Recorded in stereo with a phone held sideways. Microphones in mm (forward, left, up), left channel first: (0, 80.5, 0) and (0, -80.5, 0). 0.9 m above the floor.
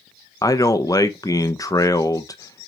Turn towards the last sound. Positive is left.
turn(degrees=20)  # may be behind; listen again after turning